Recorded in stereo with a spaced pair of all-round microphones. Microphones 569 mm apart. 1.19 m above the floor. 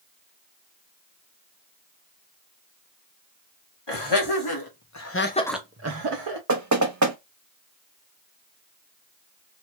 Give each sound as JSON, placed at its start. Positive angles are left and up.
{"t": 3.9, "sound": "laughter", "side_deg": 45, "distance_m": 1.7}
{"t": 6.5, "sound": "knocking", "side_deg": -30, "distance_m": 0.8}